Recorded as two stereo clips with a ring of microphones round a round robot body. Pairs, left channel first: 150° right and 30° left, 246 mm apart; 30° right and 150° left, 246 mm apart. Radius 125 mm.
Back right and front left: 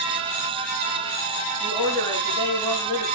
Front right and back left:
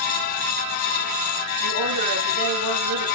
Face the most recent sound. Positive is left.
turn(degrees=130)